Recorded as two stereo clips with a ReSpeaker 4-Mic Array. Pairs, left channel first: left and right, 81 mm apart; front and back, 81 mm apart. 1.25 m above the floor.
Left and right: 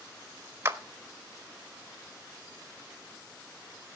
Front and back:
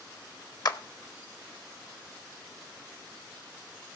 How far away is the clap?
About 1.1 m.